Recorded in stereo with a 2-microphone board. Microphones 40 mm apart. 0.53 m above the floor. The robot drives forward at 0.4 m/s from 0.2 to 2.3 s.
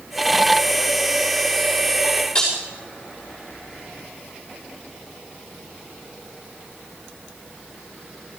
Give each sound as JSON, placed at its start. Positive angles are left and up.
{"t": 2.4, "sound": "breaking glass", "side_deg": 25, "distance_m": 5.5}